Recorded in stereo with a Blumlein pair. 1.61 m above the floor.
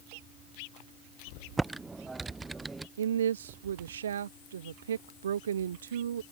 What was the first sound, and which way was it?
Typing on a keyboard, 10° right.